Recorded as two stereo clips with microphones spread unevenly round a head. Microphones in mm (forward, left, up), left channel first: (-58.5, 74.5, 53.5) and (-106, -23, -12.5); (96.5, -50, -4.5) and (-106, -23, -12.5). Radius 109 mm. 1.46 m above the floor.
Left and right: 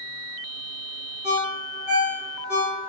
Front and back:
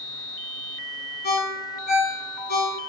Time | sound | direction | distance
1.2 | a ringtone | 45° right | 1.7 m